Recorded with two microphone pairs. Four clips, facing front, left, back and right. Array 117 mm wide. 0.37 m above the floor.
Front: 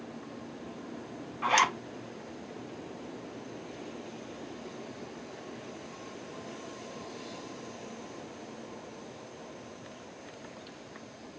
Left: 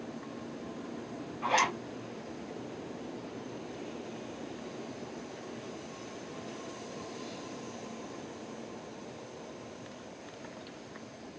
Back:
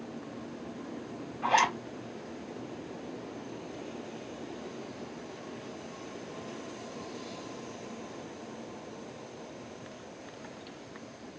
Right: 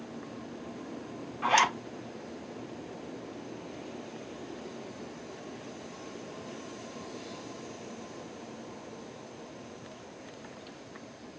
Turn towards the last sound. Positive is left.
turn(degrees=-20)